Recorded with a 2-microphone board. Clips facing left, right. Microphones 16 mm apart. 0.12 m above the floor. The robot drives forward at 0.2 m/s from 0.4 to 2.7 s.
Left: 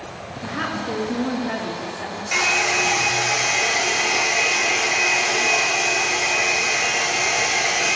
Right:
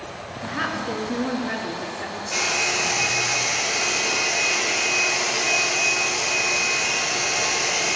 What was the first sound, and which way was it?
A woman speaking, 10° right (ahead or behind).